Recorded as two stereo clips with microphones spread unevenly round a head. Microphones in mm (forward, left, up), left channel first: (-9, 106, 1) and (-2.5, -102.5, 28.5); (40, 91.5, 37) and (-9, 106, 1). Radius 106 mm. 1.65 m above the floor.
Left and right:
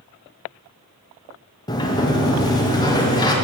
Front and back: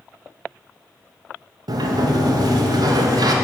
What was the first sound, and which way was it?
A sliding door, 165° left.